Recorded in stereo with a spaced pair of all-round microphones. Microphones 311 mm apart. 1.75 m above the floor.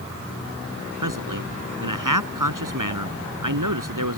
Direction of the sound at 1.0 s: 85° right.